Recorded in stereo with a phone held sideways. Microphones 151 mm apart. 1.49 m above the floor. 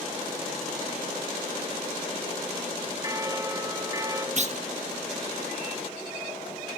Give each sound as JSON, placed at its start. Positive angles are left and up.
{"t": 3.0, "sound": "a bell", "side_deg": -20, "distance_m": 1.9}
{"t": 4.4, "sound": "a clunk", "side_deg": -50, "distance_m": 1.2}